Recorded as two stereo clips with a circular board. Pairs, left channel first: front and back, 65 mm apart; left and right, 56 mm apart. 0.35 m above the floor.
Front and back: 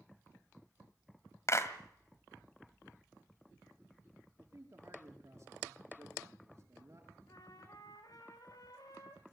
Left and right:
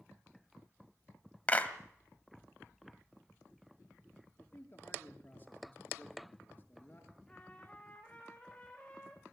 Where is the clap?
30° left, 1.7 m.